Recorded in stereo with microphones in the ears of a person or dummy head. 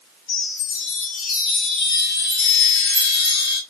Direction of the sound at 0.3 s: 40° left (ahead or behind).